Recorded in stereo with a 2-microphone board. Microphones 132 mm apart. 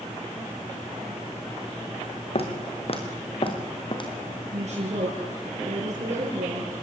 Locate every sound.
2.4 s footsteps: 50° left (ahead or behind), 4.5 m; by 4.1 s 35° left (ahead or behind), 4 m
4.5 s a woman speaking: 60° right (ahead or behind), 5.5 m